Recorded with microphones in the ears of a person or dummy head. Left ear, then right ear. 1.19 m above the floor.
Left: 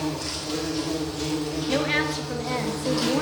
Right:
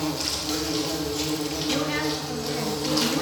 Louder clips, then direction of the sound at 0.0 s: Right 2 dB; 80° right.